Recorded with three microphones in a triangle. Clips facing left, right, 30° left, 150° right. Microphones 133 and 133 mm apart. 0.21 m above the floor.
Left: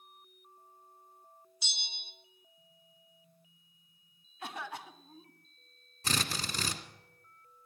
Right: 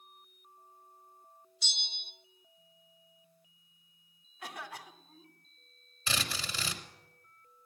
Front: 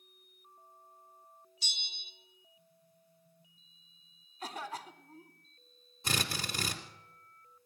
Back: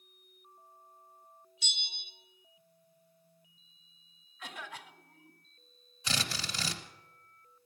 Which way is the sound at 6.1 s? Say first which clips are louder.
Left 2 dB, front 1 dB; 55° left.